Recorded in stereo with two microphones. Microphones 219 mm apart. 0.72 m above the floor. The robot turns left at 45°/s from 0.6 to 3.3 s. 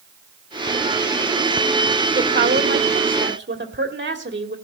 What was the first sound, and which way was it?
A woman speaking, 65° right.